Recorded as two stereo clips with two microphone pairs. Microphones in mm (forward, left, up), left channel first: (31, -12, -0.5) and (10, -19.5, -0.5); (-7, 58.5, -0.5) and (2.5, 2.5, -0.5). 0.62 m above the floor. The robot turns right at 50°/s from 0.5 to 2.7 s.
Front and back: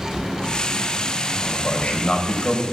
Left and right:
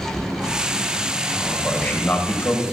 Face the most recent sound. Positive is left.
turn(degrees=70)